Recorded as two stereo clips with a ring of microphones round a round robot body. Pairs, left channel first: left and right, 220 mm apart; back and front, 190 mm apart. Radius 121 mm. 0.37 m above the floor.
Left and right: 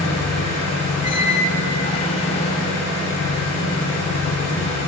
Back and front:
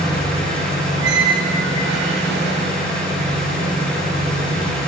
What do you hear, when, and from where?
0.0 s an engine running: 95° left, 2.5 m
1.0 s a squeak: 25° left, 0.6 m